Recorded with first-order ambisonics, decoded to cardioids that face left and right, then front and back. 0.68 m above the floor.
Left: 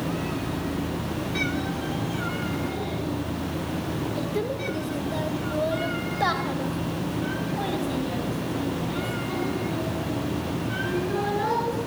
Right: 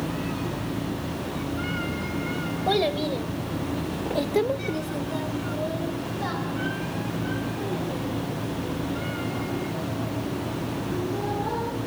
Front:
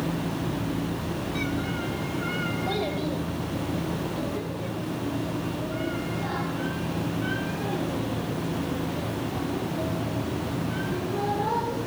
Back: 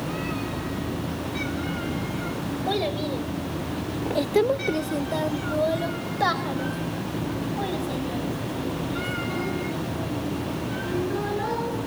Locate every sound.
2.7 s a child speaking: 105° right, 2.5 m; by 11.8 s 125° left, 8 m